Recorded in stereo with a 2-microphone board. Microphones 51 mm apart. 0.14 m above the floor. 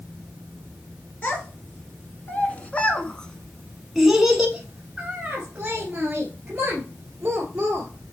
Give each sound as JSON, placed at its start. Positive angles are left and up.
{"t": 1.2, "sound": "a child speaking", "side_deg": 35, "distance_m": 1.9}